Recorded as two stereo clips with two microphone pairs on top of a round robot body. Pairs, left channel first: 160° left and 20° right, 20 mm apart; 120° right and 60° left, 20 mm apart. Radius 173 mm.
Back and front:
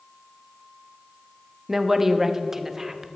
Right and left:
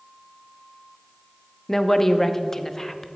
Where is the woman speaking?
95° right, 1.1 m.